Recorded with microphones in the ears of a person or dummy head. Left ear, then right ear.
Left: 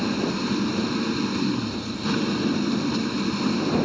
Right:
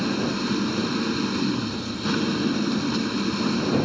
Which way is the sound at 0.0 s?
Centre (ahead or behind).